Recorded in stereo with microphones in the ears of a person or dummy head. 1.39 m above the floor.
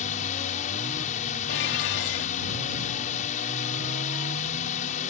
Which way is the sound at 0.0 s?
40° left (ahead or behind).